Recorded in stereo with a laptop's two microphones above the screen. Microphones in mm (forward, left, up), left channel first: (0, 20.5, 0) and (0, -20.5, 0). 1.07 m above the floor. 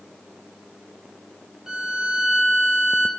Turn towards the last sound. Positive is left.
turn(degrees=-10)  # may be behind; listen again after turning